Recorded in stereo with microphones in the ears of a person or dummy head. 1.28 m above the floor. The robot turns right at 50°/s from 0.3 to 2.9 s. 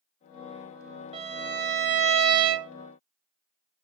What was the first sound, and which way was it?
A violin, 150° right.